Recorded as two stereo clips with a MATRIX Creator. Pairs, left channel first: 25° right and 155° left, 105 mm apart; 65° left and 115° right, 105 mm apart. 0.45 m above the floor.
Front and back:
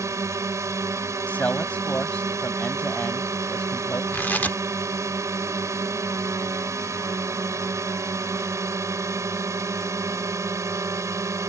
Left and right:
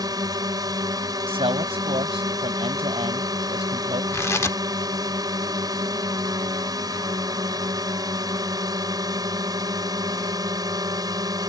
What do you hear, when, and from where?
0.0 s a drone: 150° right
1.3 s a man speaking: 100° right
4.1 s tearing paper: 35° left